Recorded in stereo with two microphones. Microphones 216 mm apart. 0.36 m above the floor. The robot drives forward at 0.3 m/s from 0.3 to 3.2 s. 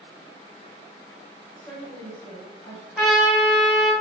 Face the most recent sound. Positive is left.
turn(degrees=0)  # may be behind; listen again after turning